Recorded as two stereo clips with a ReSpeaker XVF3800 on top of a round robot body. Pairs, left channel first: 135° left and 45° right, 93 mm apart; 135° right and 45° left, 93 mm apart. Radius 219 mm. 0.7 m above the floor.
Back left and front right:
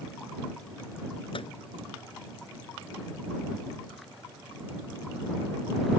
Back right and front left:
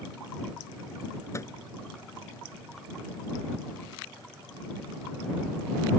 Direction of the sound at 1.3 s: 165° left.